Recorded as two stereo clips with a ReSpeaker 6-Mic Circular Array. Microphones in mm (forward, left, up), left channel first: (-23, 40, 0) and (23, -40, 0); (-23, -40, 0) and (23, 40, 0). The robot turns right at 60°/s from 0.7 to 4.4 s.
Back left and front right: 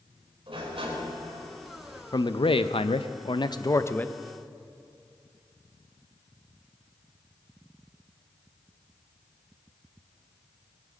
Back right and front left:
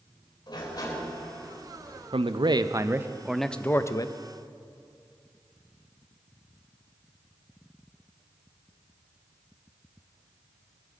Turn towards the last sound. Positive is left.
turn(degrees=-150)